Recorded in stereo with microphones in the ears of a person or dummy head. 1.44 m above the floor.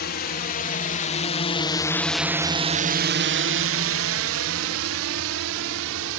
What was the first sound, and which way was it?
A drone, 50° left (ahead or behind).